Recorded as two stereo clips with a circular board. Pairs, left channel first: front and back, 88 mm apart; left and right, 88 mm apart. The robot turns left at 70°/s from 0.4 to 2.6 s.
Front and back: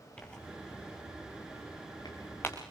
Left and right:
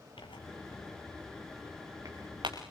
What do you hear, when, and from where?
0.2 s tearing paper: 75° left, 5 m; by 2.6 s 75° right, 5 m